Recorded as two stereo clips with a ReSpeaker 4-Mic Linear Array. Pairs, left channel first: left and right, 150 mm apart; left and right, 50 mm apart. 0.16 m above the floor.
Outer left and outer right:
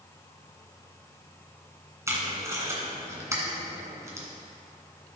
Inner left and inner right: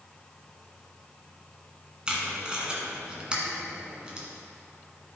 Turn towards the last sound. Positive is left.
turn(degrees=-20)  # may be behind; listen again after turning